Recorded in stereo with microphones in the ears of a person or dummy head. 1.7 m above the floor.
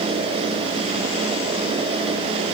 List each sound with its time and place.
Only background noise.